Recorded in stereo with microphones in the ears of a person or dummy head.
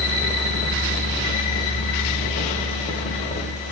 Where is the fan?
35° left (ahead or behind), 1.0 m.